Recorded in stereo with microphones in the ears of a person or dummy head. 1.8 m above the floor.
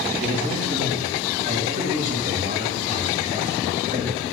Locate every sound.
0.2 s a man speaking: 40° right (ahead or behind), 5 m